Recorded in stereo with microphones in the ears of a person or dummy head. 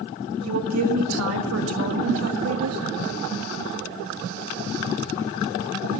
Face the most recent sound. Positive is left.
turn(degrees=-75)  # may be behind; listen again after turning